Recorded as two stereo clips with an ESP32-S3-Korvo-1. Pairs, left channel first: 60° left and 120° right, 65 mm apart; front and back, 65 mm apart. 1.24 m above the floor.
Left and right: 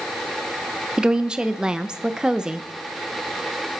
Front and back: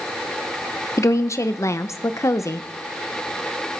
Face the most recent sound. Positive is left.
turn(degrees=-40)